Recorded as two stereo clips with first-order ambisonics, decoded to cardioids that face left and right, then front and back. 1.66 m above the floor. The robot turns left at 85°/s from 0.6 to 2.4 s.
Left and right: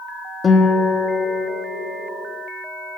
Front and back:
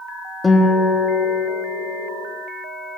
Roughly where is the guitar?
Ahead left.